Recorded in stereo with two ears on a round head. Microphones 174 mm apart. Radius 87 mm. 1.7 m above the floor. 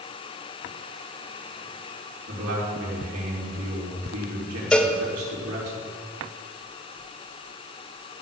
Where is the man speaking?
85° right, 4.5 m.